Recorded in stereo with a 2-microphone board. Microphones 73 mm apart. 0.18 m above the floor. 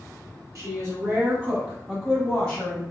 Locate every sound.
0.6 s a woman speaking: 45° right (ahead or behind), 1.5 m; by 2.8 s 25° left (ahead or behind), 1.2 m